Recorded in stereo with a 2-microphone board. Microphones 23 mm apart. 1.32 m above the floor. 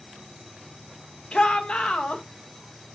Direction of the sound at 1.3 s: 55° left (ahead or behind).